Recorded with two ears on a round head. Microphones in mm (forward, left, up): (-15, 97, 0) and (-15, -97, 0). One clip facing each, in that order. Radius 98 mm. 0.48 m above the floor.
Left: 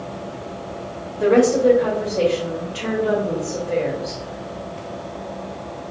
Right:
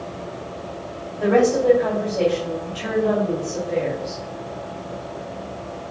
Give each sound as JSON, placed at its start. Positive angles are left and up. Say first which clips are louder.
{"t": 1.2, "sound": "a woman speaking", "louder": "left 2 dB", "side_deg": 45, "distance_m": 2.0}